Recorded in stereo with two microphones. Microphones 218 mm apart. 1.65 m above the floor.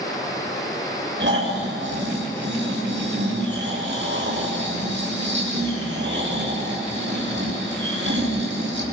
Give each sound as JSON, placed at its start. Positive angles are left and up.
{"t": 1.2, "sound": "snoring", "side_deg": -60, "distance_m": 6.5}